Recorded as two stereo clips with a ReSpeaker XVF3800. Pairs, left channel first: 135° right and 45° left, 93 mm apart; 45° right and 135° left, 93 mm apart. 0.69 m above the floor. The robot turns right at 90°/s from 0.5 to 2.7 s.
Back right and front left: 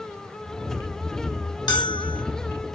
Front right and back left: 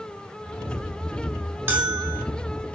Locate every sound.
1.7 s a bell: 160° right, 0.8 m; by 2.2 s 110° right, 0.8 m